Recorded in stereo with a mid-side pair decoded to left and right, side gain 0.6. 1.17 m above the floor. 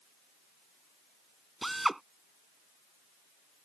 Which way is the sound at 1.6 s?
10° right.